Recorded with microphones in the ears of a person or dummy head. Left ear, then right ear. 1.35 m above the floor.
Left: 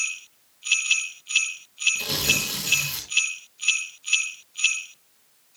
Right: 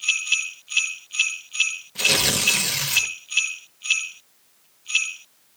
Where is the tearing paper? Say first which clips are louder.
Right 4 dB; 35° right (ahead or behind), 1.2 m.